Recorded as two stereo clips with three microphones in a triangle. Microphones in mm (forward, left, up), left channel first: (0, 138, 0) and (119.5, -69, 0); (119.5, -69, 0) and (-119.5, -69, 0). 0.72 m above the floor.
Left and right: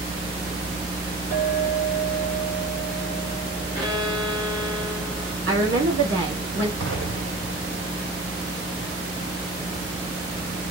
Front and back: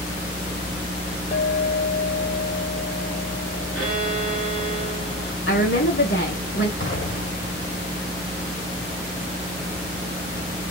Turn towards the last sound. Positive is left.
turn(degrees=-35)